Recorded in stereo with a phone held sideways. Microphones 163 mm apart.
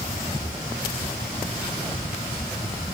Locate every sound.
0.4 s breathing: 50° left (ahead or behind), 2.5 m